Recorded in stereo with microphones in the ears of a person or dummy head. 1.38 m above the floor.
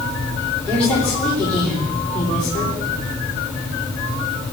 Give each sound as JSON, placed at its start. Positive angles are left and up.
{"t": 0.7, "sound": "a woman speaking", "side_deg": 10, "distance_m": 3.5}